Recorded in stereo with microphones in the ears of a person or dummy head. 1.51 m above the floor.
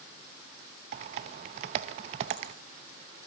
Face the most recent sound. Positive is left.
turn(degrees=-35)  # may be behind; listen again after turning